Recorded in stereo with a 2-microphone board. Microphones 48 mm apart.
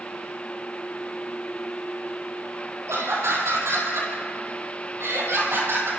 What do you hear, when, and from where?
2.9 s laughter: 75° right (ahead or behind), 7.5 m; by 5.9 s 60° right (ahead or behind), 7.5 m